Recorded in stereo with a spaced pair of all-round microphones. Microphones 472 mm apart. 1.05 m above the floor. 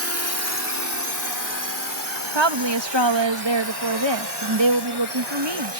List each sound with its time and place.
0.0 s a drone: 30° left (ahead or behind); by 5.8 s 60° left (ahead or behind)
2.4 s a woman speaking: 65° right (ahead or behind)